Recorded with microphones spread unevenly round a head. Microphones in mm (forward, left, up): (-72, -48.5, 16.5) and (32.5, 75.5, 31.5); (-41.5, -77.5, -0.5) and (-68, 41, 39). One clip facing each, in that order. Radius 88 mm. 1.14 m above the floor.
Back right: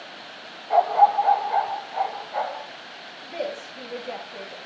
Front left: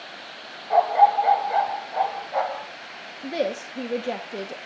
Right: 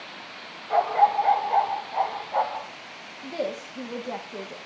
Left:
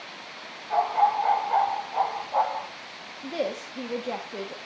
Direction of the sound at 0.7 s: 40° right.